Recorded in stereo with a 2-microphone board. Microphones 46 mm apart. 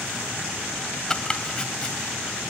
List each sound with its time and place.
1.1 s chopping: 20° left (ahead or behind), 1.7 m